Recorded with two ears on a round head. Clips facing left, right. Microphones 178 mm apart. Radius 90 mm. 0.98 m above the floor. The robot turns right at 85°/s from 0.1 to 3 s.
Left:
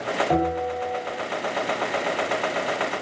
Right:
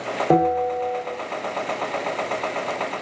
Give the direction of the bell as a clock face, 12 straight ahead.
4 o'clock.